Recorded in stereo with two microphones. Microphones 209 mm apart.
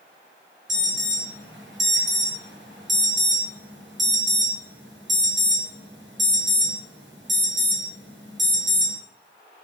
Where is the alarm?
65° right (ahead or behind), 6.5 m.